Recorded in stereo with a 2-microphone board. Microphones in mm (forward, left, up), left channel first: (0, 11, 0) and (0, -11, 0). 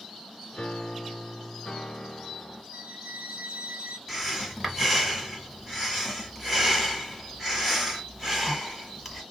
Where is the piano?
40° left (ahead or behind), 0.8 m.